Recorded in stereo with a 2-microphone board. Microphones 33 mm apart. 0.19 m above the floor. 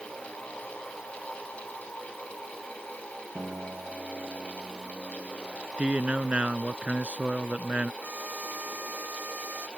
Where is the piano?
40° right (ahead or behind).